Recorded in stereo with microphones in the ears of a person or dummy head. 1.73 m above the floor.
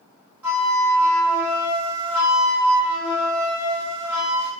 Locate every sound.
0.4 s a flute: 10° right (ahead or behind), 1.8 m